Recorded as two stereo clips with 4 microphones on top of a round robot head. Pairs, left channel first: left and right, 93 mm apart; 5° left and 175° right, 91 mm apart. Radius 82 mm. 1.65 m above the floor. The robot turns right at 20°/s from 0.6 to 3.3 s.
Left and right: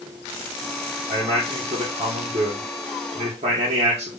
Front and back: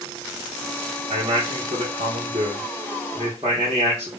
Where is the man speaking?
155° right, 1.2 m; by 4.1 s 110° right, 1.2 m.